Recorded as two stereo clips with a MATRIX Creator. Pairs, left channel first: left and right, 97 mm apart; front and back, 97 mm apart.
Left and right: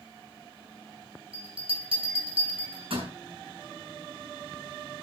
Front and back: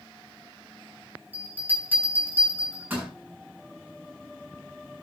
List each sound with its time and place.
1.3 s a bell: 105° right, 7 m